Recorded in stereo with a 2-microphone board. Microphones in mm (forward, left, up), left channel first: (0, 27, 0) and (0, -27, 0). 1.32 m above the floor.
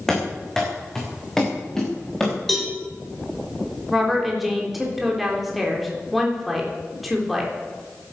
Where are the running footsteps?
10° left (ahead or behind), 6 m.